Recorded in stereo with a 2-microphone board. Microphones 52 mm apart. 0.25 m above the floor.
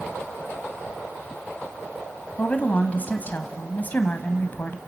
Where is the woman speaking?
35° left (ahead or behind), 1.4 m.